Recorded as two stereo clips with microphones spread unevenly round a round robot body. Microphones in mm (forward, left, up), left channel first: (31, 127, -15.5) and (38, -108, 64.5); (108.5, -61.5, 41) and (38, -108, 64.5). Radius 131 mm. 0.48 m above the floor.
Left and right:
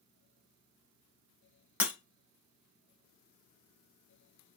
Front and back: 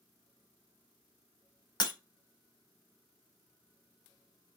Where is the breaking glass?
10° right, 0.7 m.